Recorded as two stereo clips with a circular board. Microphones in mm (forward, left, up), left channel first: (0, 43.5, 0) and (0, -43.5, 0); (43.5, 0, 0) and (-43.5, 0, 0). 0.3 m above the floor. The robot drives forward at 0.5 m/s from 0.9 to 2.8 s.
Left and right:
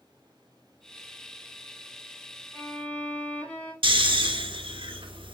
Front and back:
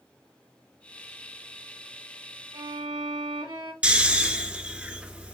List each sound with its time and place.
2.5 s a violin: 160° left, 1.8 m; by 3.7 s 165° left, 1.9 m
3.8 s snoring: 105° right, 1.1 m